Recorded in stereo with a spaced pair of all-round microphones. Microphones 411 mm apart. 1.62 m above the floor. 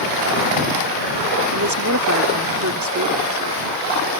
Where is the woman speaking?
45° right (ahead or behind).